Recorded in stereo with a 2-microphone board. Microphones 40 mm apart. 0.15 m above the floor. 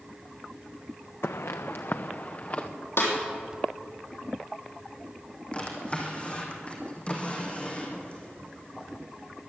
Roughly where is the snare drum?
Left.